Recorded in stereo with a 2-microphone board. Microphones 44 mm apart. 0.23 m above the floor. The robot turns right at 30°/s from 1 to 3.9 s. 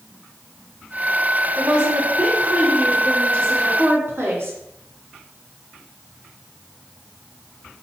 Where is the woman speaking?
160° right, 2.5 m; by 4.6 s 90° right, 2.5 m.